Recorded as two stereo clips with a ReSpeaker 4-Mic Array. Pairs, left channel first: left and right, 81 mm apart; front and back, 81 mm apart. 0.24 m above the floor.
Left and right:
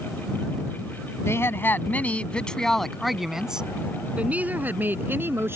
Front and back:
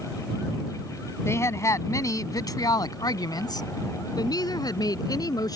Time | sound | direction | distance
1.2 | a woman speaking | 45° left | ?